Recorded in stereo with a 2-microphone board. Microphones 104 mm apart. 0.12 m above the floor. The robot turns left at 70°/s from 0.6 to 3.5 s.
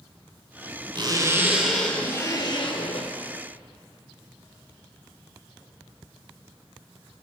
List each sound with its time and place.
0.9 s a zipper: 120° right, 2.5 m; by 3.1 s 90° left, 2.5 m